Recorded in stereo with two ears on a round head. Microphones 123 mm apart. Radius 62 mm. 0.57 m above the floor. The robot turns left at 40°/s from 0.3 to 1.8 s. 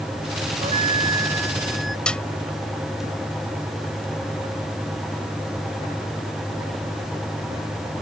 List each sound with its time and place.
0.6 s a flute: 130° right; by 2.0 s straight behind
2.1 s a snare drum: 5° left (ahead or behind)